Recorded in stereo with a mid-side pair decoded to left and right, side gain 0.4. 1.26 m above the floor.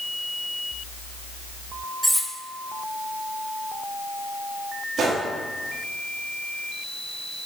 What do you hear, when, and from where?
2.0 s cutlery clinking: 10° right, 1.5 m
5.0 s a gunshot: 60° right, 2.5 m